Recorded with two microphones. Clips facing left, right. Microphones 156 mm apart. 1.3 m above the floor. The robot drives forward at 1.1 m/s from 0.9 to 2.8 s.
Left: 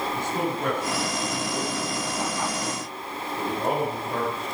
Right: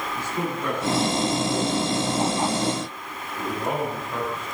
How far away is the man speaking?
About 6 m.